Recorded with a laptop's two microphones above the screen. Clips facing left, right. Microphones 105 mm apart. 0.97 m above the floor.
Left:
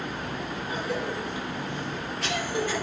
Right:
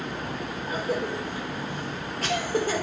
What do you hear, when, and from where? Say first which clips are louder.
0.7 s a cough: right 3 dB; 40° right (ahead or behind), 1.1 m